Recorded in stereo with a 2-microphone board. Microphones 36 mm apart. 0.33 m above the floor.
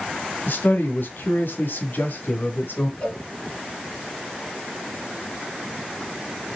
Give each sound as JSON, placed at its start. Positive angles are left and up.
{"t": 0.5, "sound": "a man speaking", "side_deg": 65, "distance_m": 2.5}
{"t": 3.0, "sound": "a cowbell", "side_deg": 35, "distance_m": 1.9}